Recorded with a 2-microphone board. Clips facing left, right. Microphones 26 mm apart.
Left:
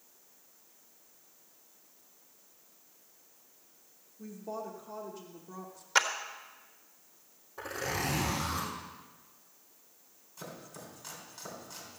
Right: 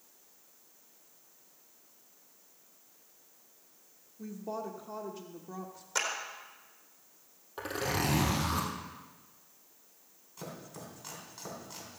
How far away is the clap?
About 1.4 m.